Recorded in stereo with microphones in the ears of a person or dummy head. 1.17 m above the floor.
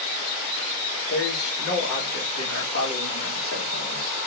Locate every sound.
1.1 s a man speaking: 65° left (ahead or behind), 2.5 m; by 4.2 s 75° left (ahead or behind), 3.5 m